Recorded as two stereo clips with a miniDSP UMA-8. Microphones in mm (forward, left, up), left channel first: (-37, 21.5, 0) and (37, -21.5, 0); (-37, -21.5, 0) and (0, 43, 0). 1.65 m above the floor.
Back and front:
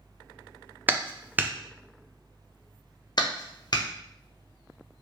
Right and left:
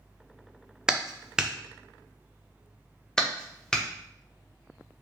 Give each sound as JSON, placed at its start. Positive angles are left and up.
{"t": 0.9, "sound": "a clap", "azimuth_deg": -5, "distance_m": 0.5}
{"t": 3.2, "sound": "a clap", "azimuth_deg": 160, "distance_m": 1.0}